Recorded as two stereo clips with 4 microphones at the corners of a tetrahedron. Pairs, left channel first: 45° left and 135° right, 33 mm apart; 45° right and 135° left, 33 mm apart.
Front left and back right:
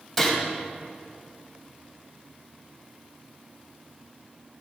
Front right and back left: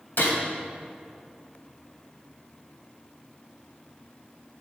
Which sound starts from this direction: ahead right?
A gunshot, at 0.2 s.